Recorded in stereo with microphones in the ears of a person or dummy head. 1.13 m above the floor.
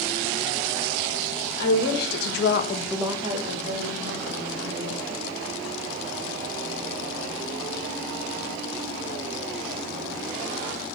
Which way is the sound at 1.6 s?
60° left (ahead or behind).